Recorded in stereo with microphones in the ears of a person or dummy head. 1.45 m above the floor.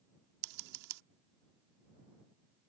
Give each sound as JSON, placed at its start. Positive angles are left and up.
{"t": 0.4, "sound": "scissors", "side_deg": -65}